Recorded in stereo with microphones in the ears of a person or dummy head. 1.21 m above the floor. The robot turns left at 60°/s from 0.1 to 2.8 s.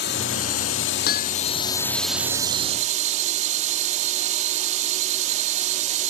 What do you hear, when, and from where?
0.0 s a drone: 120° left; by 6.1 s 40° right
1.1 s hammering: 55° left (ahead or behind); by 1.4 s 35° left (ahead or behind)